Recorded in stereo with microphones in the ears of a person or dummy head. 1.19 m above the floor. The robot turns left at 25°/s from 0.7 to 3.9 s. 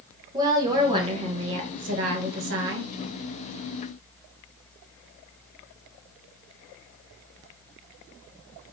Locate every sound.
0.3 s a woman speaking: 25° right, 1.4 m; by 2.9 s 80° right, 1.4 m